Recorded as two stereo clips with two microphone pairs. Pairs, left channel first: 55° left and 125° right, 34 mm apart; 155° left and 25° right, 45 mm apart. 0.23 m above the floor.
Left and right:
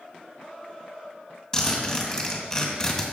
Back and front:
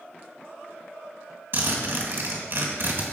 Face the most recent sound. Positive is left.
turn(degrees=-15)